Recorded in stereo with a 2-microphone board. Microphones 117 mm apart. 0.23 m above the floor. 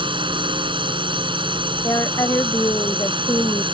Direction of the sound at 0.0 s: 45° right (ahead or behind).